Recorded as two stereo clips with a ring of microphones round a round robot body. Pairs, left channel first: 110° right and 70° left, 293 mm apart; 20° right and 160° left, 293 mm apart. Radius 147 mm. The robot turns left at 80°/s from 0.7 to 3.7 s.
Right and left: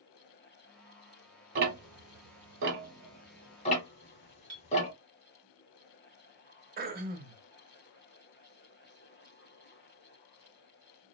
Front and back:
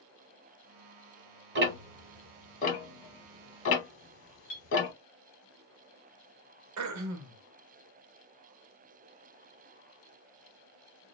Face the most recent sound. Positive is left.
turn(degrees=125)